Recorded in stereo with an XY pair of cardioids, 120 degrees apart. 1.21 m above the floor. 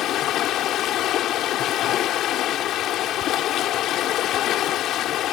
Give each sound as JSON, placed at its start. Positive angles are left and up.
{"t": 0.0, "sound": "running water", "azimuth_deg": 65}